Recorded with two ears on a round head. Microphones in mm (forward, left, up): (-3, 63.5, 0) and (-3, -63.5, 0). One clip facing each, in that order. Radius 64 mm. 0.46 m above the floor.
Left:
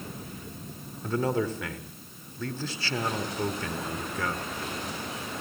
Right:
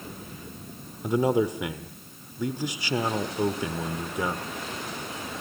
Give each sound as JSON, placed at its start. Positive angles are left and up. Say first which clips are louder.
{"t": 1.0, "sound": "a man speaking", "louder": "right 4 dB", "side_deg": -15, "distance_m": 1.3}